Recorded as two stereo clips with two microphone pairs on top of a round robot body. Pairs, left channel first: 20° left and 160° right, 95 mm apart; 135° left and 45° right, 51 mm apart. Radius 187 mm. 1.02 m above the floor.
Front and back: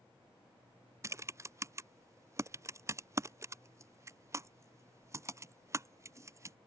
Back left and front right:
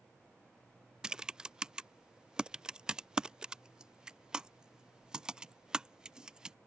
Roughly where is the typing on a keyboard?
Behind right.